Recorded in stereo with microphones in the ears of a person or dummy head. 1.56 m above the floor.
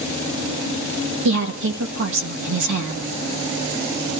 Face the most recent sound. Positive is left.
turn(degrees=-70)  # may be behind; listen again after turning